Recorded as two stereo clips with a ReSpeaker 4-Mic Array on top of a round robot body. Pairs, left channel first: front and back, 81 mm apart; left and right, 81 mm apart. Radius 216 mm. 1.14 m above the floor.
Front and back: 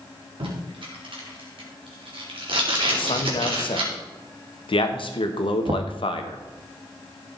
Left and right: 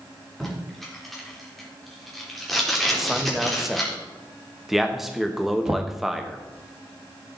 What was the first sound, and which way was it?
Tape being pulled, straight behind.